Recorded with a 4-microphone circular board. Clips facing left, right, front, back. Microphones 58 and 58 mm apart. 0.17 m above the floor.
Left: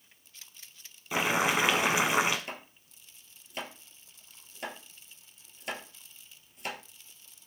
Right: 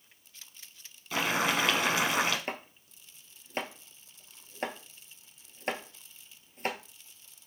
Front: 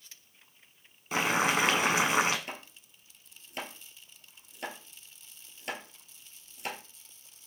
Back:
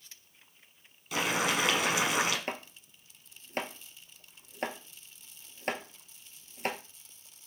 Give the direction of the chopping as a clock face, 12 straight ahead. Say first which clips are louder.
Right 4 dB, back 5 dB; 5 o'clock.